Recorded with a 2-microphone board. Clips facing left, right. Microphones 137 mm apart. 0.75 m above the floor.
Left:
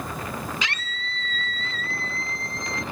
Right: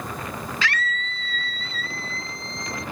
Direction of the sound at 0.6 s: 15° left (ahead or behind).